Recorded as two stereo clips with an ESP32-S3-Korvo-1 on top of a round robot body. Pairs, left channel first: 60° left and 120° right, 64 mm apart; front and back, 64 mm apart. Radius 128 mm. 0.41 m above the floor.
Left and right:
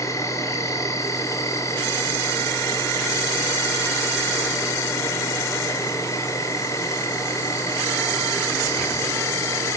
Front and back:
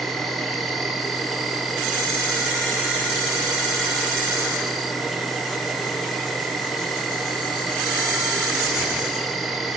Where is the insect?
90° left, 1.8 m.